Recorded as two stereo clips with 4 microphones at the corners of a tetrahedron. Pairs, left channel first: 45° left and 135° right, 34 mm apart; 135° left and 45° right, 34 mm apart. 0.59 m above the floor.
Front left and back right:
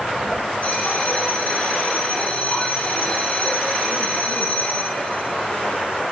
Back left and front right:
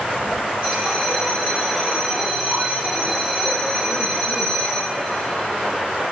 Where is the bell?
20° left, 6 m.